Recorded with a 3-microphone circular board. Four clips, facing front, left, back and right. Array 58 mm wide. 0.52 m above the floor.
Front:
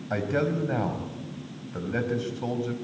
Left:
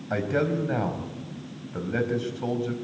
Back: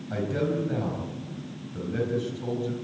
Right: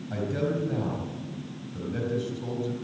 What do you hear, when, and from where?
0.1 s a man speaking: 50° left, 4 m